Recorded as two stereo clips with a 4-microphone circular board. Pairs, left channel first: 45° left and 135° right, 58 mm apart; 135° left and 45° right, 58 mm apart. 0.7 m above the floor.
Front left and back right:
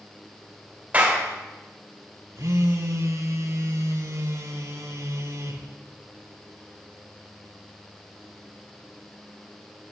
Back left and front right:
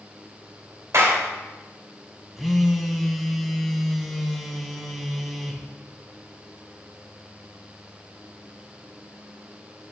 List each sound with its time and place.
0.9 s a clap: 70° right, 3 m
2.4 s a phone buzzing: 135° right, 1.1 m